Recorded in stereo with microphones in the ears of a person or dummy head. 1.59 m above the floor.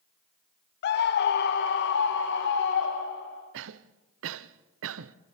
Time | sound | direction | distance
0.8 | a scream | 60° left (ahead or behind) | 0.6 m
3.5 | a cough | 80° right | 0.8 m